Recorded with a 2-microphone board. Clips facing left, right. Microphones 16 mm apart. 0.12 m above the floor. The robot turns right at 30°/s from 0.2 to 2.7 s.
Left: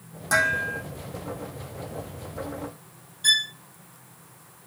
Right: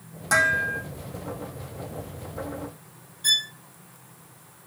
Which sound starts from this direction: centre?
Dishes clattering, at 0.3 s.